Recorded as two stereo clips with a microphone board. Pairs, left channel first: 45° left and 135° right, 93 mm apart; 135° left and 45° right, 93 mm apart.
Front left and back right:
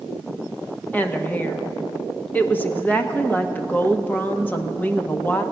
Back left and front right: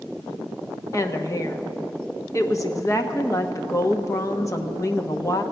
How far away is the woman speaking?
About 0.9 m.